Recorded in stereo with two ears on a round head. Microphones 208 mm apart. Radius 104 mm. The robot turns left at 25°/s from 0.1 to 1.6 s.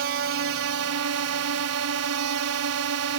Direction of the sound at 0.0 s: 60° right.